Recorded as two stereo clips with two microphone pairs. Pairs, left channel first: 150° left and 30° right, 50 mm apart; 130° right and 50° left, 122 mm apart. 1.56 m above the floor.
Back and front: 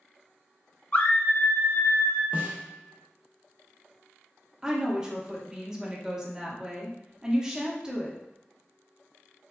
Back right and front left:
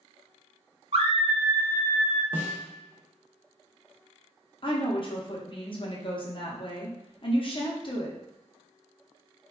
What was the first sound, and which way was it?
A scream, 90° left.